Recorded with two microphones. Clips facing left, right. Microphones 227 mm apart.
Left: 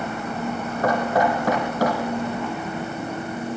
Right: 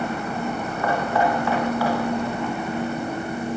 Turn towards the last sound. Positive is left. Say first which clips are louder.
# left 2 dB
turn(degrees=40)  # may be behind; listen again after turning